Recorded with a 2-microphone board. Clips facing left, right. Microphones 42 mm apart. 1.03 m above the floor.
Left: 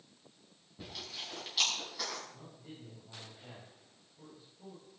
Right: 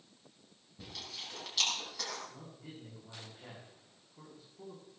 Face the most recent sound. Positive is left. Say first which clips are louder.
# right 1 dB
turn(degrees=-75)  # may be behind; listen again after turning